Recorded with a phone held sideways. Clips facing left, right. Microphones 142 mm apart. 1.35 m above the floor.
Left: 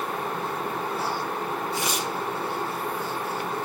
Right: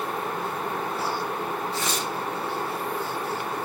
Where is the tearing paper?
15° left (ahead or behind), 0.8 m.